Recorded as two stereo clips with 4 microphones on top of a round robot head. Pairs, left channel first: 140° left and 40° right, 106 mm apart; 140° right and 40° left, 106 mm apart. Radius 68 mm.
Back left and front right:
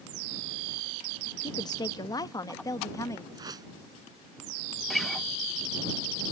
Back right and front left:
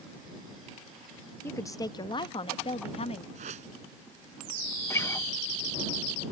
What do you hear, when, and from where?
1.4 s a woman speaking: 160° left; by 3.2 s 160° right
3.4 s a whoosh: 20° left
4.9 s a guitar: 135° right